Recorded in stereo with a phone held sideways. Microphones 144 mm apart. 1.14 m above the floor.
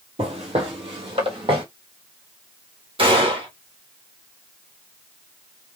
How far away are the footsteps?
About 1.5 m.